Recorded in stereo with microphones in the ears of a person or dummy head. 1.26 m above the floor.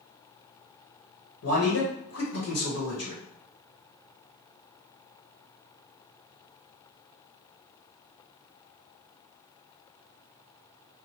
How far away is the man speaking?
About 1.0 m.